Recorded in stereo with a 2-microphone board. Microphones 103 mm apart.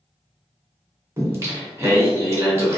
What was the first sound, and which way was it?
Singing, 25° right (ahead or behind).